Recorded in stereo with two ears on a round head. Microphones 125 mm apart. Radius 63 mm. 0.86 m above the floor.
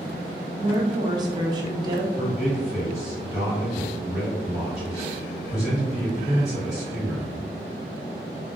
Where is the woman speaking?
30° right (ahead or behind), 0.6 m.